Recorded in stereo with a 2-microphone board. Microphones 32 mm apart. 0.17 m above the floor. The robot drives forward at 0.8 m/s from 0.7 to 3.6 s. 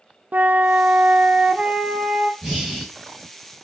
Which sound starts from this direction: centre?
Breathing, at 2.4 s.